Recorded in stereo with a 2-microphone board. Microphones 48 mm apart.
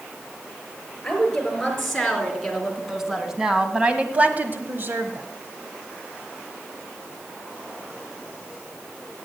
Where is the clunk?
No clunk in this recording.